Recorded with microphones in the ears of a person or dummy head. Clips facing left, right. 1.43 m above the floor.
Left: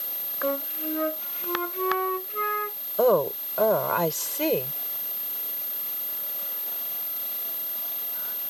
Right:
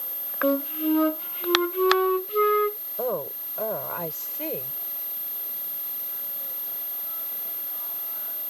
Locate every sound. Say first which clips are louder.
0.4 s a flute: right 6 dB; 45° right (ahead or behind)
3.0 s a woman speaking: left 9 dB; 70° left (ahead or behind)